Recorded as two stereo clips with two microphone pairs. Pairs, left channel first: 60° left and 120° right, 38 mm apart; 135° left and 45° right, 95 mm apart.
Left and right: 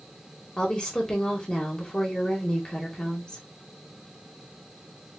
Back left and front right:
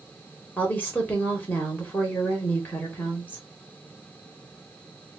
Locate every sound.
0.6 s a woman speaking: 90° left, 1.2 m